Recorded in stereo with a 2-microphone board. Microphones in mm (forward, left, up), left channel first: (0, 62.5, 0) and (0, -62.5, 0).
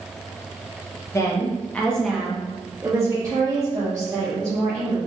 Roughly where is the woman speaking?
Left.